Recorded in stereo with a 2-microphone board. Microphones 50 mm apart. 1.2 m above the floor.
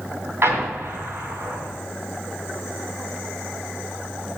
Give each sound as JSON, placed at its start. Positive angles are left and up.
{"t": 0.4, "sound": "an explosion", "side_deg": -55, "distance_m": 2.5}